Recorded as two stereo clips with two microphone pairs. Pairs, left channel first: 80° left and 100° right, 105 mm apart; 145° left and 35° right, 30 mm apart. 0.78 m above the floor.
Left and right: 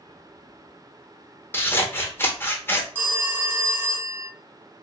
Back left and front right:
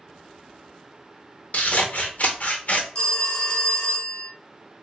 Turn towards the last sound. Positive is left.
turn(degrees=-170)